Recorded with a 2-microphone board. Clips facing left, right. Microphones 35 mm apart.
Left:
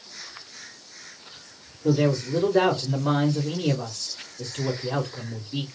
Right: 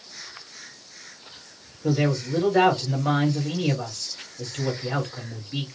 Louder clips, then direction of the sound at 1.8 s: Left 2 dB; 40° right (ahead or behind).